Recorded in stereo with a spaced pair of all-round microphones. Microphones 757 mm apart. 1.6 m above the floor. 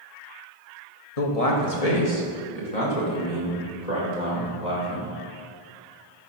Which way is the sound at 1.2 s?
50° left (ahead or behind).